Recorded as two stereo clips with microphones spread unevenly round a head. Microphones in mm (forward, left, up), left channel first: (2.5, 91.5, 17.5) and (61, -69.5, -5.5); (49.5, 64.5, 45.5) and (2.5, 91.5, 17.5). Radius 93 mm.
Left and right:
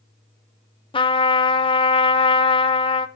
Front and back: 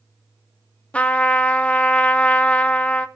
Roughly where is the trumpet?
Ahead left.